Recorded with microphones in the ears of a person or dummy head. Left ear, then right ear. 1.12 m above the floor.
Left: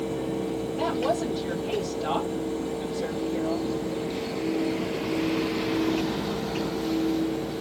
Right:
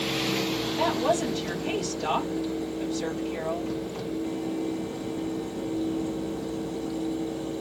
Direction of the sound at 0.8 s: 75° right (ahead or behind).